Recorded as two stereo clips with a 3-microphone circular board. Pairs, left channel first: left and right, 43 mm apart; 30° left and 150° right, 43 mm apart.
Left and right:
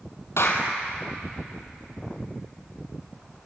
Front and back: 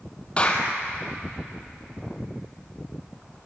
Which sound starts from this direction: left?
A clap, at 0.4 s.